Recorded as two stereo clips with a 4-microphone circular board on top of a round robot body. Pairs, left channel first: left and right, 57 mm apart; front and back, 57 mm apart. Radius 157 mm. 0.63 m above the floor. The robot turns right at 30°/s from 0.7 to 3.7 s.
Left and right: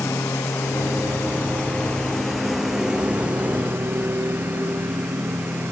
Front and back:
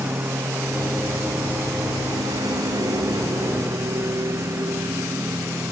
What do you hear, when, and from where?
0.0 s a lawn mower: 130° left; by 5.7 s 140° right